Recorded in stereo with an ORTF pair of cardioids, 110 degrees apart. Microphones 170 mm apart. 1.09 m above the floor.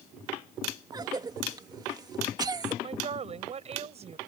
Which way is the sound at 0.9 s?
25° right.